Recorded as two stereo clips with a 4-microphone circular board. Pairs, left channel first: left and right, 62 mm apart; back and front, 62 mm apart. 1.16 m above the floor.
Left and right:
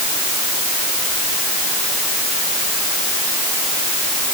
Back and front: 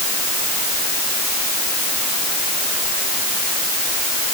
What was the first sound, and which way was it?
Only background noise.